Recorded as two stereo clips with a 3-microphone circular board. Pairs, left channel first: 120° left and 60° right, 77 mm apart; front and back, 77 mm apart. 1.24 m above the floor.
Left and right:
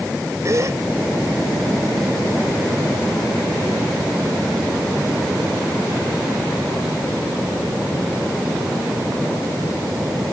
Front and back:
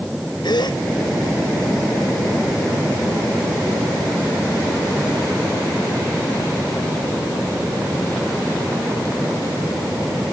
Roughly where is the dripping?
No dripping in this recording.